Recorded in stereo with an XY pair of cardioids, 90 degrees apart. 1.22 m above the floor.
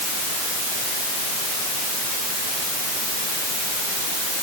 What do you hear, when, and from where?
Only background noise.